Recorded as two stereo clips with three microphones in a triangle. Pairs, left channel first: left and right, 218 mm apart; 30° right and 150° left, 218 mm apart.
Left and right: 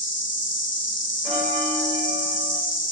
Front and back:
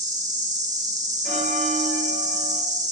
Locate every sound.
0.0 s an insect: 100° left, 0.7 m
1.2 s a bell: 5° right, 1.8 m